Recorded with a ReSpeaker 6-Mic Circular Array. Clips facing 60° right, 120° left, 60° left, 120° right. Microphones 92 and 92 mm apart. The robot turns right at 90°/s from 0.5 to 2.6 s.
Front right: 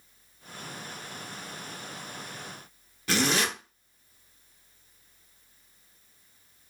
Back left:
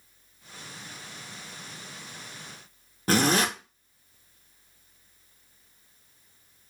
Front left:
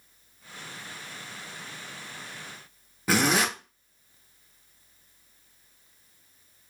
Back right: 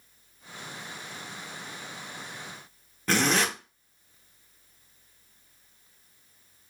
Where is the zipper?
140° left, 0.9 m.